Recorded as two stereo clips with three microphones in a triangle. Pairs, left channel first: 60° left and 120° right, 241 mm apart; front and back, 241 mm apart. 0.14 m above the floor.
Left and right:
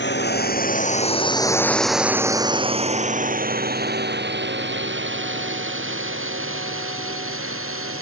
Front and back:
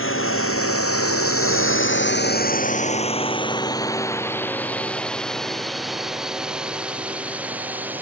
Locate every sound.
0.0 s a drone: 25° left; by 8.0 s 95° right